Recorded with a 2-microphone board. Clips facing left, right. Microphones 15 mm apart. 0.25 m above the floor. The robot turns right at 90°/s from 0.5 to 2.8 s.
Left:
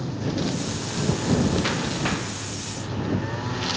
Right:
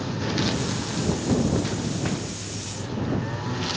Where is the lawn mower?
35° right; by 3.8 s 170° left.